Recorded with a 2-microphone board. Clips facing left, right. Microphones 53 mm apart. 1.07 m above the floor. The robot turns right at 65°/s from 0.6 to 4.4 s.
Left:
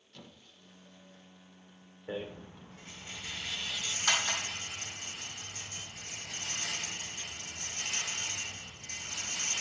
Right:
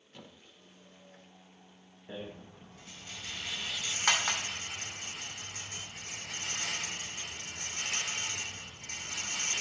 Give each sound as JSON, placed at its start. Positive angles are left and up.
{"t": 0.1, "sound": "a squeak", "side_deg": -20, "distance_m": 1.0}
{"t": 2.1, "sound": "a rattle", "side_deg": 85, "distance_m": 2.0}